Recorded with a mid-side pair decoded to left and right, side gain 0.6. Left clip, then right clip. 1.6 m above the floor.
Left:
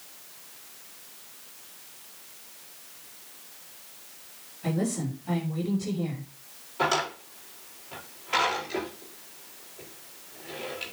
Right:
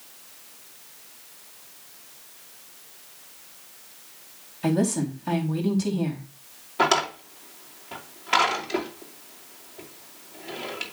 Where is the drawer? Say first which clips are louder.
Right 4 dB; 50° right, 2.5 m.